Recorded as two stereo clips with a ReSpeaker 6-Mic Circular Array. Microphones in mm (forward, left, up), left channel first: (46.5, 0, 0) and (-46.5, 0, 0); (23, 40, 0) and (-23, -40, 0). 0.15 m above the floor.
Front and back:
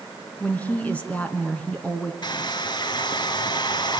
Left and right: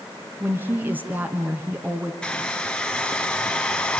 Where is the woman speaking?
65° right, 1.7 m.